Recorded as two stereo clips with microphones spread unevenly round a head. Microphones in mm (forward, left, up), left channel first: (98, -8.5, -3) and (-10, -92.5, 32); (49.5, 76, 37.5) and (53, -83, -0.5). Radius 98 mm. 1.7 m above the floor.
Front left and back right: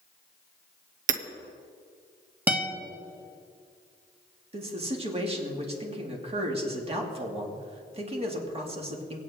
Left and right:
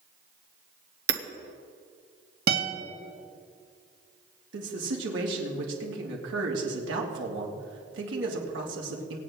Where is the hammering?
135° right, 0.9 m.